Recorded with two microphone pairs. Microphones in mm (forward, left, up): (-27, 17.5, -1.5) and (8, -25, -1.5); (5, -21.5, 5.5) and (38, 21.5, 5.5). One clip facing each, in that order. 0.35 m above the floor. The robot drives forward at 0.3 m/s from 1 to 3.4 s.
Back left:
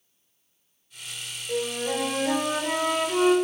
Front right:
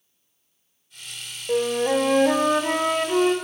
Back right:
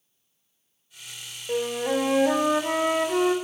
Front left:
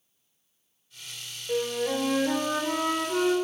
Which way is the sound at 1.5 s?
65° right.